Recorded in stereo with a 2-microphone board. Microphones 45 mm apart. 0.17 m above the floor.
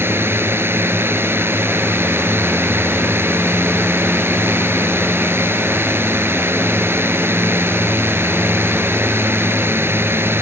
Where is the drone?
60° right (ahead or behind).